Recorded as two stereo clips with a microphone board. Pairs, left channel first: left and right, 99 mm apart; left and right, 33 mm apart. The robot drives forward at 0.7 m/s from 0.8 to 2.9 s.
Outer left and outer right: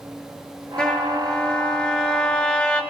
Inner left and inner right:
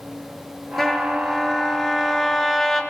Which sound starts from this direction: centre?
A trumpet, at 0.8 s.